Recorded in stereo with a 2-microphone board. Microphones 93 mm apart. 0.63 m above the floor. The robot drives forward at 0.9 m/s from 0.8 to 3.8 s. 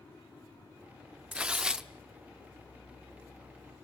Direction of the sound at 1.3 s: 15° right (ahead or behind).